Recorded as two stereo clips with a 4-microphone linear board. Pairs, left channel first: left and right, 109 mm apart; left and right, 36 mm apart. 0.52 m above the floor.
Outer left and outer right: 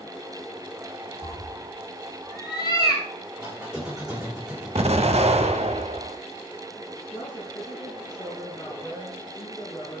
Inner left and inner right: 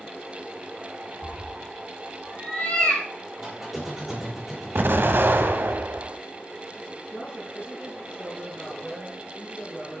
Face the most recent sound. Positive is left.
turn(degrees=30)  # may be behind; listen again after turning